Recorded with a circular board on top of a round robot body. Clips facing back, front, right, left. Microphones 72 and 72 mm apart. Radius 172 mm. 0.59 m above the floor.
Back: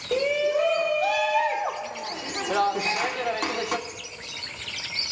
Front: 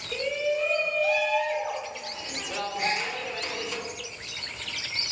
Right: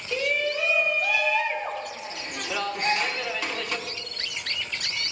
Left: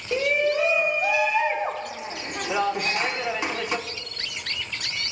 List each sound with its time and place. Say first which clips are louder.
0.1 s a shout: back 5 dB, left 4 dB; 160° left, 1.7 m
2.8 s a gasp: back 2 dB, right 1 dB; 40° right, 7 m